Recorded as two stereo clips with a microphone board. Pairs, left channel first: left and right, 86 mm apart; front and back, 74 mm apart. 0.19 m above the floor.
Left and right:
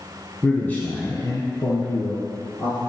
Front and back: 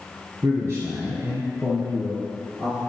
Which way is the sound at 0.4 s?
165° left.